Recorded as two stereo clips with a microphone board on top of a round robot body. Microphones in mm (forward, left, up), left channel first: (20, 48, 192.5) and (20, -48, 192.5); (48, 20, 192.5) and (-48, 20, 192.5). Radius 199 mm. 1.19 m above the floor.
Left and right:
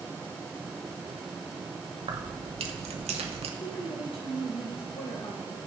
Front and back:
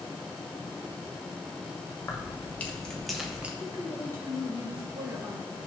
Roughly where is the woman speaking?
Behind left.